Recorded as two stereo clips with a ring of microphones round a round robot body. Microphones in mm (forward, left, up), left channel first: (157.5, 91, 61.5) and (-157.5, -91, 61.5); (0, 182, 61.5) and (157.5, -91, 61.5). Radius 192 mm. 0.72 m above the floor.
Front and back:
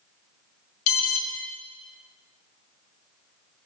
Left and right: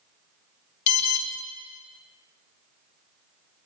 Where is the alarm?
85° left, 0.8 m.